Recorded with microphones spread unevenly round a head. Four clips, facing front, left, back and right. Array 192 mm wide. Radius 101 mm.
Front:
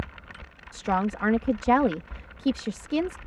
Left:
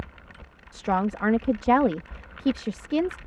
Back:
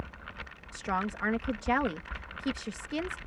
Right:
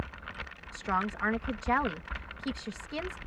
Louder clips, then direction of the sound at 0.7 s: Left 7 dB, front 6 dB; 60° left.